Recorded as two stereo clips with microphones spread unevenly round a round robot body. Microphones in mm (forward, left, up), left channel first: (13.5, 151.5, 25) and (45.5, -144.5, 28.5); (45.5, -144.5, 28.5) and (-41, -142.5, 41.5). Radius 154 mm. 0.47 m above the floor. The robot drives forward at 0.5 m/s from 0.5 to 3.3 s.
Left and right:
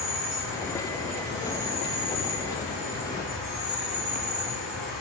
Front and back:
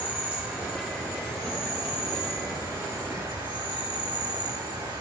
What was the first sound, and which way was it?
An insect, 105° right.